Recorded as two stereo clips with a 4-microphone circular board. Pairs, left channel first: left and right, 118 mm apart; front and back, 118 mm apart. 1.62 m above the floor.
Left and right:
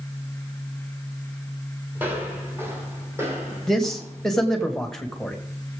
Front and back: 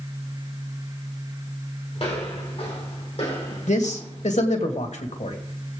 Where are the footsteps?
20° right, 3.5 m; by 4.7 s 30° right, 5 m.